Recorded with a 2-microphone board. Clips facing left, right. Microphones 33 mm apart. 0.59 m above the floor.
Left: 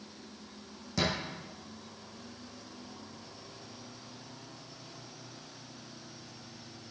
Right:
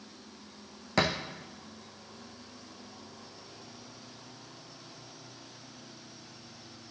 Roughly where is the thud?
Right.